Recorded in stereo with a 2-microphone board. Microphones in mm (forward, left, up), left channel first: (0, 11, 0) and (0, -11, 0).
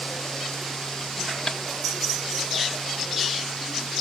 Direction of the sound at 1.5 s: 50° left (ahead or behind).